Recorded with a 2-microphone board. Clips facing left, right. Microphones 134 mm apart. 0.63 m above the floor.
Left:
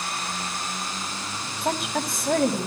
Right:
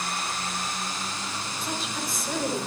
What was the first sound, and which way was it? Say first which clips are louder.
A woman speaking: left 8 dB; 70° left (ahead or behind).